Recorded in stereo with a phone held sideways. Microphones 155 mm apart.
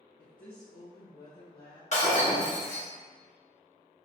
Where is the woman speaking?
60° left (ahead or behind), 0.5 m; by 1.8 s 85° left, 1.2 m.